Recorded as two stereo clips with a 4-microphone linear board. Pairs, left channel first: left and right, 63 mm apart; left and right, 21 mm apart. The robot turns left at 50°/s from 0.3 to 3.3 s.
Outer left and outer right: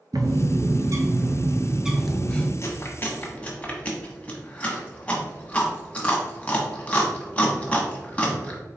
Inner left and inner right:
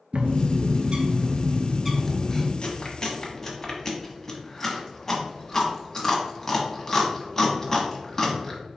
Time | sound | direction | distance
0.1 | a bird | 95° right | 0.7 m
2.6 | chewing | 50° left (ahead or behind) | 1.0 m